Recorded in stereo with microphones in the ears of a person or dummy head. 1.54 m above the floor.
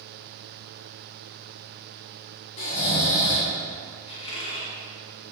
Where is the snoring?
40° left (ahead or behind), 2 m.